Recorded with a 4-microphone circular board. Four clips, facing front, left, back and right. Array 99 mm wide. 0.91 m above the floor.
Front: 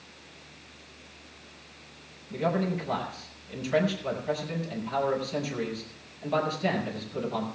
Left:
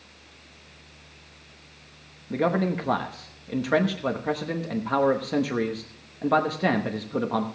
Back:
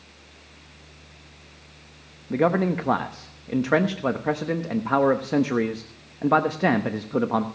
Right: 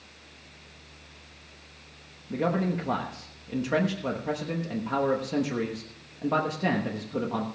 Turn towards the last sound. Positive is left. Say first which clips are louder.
# left 3 dB, back 7 dB
turn(degrees=160)